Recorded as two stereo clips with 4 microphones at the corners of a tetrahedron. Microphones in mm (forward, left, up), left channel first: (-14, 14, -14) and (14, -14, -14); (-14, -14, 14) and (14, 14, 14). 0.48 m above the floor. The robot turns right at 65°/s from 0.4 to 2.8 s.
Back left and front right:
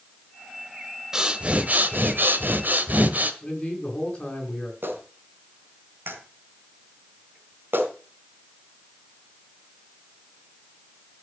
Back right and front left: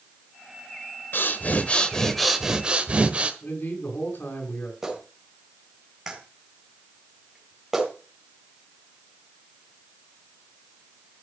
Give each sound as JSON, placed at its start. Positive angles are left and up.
{"t": 1.1, "sound": "breathing", "azimuth_deg": -120, "distance_m": 1.3}
{"t": 3.4, "sound": "a man speaking", "azimuth_deg": -155, "distance_m": 6.0}
{"t": 4.8, "sound": "a clap", "azimuth_deg": -30, "distance_m": 3.5}